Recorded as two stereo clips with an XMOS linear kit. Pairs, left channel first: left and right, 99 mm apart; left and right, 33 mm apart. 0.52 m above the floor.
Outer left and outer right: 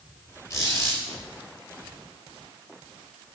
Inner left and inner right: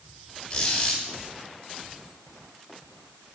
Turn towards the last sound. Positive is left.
turn(degrees=35)  # may be behind; listen again after turning